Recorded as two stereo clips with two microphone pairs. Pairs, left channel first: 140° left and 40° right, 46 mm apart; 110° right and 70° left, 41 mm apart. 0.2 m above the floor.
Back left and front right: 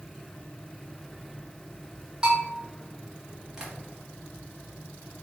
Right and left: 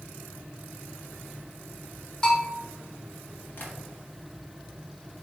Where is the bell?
70° right, 1.4 m.